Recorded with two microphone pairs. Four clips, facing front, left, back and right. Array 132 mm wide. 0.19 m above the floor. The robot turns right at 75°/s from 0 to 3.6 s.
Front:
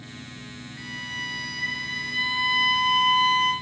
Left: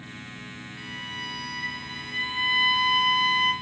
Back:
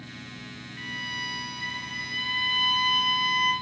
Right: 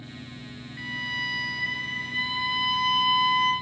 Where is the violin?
120° right, 1.0 m; by 3.5 s 90° left, 1.0 m.